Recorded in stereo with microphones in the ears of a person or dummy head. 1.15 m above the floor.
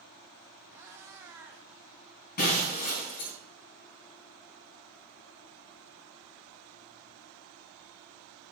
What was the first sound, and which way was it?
A cat meowing, 10° right (ahead or behind).